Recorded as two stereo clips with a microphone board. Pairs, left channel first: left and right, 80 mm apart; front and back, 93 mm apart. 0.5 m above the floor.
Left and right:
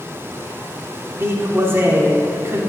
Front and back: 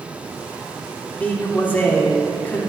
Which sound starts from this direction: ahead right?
A man speaking, at 1.2 s.